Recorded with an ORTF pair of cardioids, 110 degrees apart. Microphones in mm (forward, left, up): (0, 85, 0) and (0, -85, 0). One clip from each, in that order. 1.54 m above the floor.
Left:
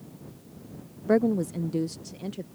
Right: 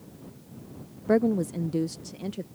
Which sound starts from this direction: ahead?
A woman speaking, at 1.1 s.